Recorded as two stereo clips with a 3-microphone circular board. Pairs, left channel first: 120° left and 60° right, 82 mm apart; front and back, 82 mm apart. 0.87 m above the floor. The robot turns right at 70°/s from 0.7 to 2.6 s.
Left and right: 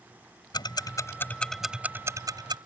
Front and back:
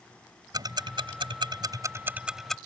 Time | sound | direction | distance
0.5 | ticking | 145° left | ?